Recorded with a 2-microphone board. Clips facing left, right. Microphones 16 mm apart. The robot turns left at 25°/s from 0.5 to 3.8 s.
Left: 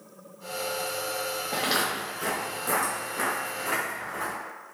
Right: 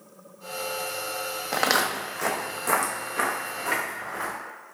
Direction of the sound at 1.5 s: 75° right (ahead or behind).